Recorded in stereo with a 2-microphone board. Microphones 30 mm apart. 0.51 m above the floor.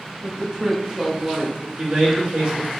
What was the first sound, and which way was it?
A woman speaking, 10° right (ahead or behind).